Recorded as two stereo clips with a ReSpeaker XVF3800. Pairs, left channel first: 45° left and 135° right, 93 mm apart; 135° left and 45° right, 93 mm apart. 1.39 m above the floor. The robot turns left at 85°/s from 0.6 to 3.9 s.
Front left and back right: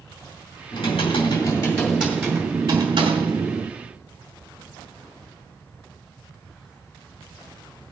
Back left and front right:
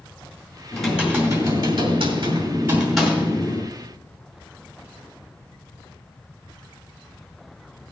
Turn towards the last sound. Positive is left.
turn(degrees=145)